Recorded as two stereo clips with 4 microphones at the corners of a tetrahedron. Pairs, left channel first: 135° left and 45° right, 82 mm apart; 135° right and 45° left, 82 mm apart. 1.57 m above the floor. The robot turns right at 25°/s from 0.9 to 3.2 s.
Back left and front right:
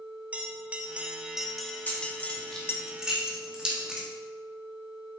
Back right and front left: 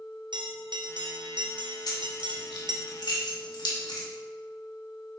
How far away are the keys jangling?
About 1.7 m.